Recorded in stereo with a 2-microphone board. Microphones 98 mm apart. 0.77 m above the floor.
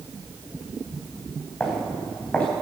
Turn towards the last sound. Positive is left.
turn(degrees=15)  # may be behind; listen again after turning